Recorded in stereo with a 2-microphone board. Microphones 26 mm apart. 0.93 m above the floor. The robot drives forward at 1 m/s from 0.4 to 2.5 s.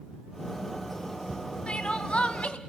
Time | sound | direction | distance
1.7 | crying | 35° left (ahead or behind) | 1.9 m